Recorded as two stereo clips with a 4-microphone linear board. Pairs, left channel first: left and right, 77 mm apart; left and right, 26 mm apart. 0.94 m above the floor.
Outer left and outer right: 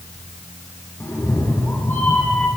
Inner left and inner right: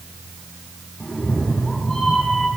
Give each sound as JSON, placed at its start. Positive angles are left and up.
{"t": 1.0, "sound": "a cat meowing", "side_deg": 35, "distance_m": 6.0}